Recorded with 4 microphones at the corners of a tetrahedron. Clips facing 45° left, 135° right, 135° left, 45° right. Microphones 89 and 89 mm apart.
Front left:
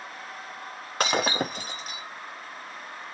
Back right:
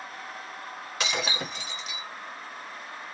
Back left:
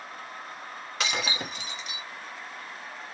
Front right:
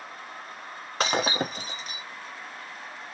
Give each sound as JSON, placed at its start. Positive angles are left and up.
{"t": 1.0, "sound": "breaking glass", "azimuth_deg": 0, "distance_m": 0.6}